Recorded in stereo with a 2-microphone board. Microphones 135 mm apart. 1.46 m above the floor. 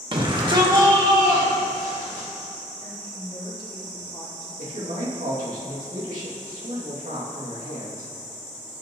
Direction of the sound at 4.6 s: 75° right (ahead or behind).